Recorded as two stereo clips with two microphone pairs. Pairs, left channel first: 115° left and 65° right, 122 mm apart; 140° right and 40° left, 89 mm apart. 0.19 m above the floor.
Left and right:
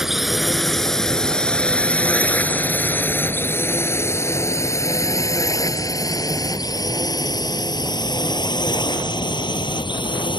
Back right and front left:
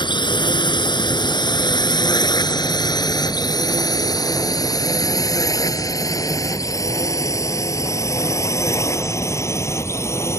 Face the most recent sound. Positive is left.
turn(degrees=160)